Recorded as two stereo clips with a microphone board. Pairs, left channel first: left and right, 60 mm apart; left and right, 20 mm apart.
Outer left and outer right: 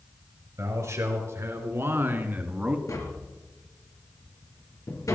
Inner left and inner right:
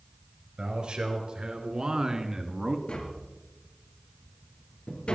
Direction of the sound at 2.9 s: 65° left (ahead or behind).